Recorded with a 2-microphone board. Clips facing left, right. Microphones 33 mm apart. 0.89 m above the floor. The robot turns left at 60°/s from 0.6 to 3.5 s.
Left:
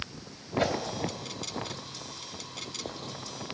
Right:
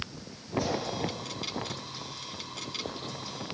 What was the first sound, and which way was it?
A whoosh, 55° left (ahead or behind).